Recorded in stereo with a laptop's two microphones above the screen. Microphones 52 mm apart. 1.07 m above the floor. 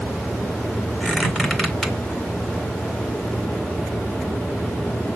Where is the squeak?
10° left (ahead or behind), 1.8 m.